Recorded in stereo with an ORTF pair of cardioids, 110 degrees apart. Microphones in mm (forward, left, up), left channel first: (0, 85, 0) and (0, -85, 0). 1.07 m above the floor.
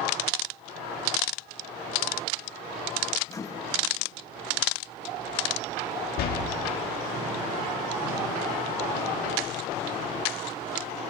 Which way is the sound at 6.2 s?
65° left.